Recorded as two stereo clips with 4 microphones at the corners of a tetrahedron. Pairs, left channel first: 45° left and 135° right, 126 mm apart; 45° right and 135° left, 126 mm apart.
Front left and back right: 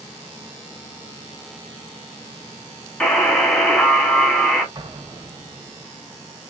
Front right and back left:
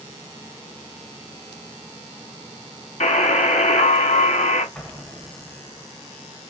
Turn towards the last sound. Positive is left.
turn(degrees=-120)